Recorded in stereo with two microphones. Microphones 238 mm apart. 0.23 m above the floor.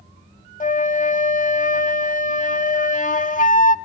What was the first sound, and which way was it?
A flute, 35° left (ahead or behind).